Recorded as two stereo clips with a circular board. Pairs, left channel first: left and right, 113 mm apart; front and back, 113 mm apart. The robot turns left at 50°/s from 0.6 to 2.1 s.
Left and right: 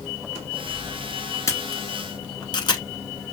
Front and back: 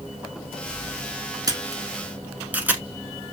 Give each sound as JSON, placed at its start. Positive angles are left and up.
{"t": 1.5, "sound": "a camera shutter", "azimuth_deg": 140, "distance_m": 0.9}